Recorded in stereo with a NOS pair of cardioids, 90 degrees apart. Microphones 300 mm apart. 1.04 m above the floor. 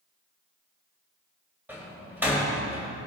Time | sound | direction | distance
1.7 | a door slam | 5° right | 3.5 m